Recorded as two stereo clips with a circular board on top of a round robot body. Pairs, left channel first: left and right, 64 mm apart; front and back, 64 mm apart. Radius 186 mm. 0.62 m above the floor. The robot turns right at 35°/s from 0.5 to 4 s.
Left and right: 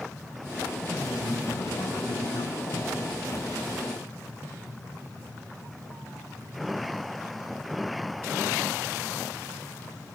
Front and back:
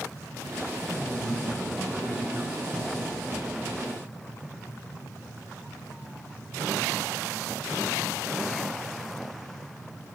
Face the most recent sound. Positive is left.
turn(degrees=170)